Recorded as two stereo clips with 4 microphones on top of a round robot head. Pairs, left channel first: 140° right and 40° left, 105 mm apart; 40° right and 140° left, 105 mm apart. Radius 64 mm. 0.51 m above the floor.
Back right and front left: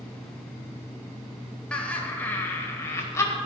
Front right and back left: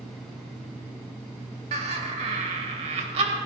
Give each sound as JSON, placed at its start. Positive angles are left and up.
{"t": 1.7, "sound": "laughter", "azimuth_deg": 145, "distance_m": 2.5}